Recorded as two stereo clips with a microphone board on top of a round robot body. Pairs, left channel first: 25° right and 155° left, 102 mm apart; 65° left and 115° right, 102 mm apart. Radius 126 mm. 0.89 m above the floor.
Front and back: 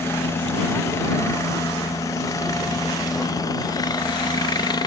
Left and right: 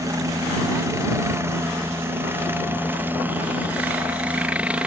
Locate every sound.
0.0 s a helicopter: 75° right; by 4.9 s 40° right